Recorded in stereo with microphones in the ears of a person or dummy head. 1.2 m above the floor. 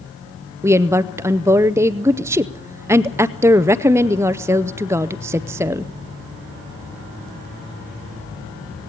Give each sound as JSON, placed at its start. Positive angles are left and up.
{"t": 0.6, "sound": "a woman speaking", "side_deg": -10, "distance_m": 0.6}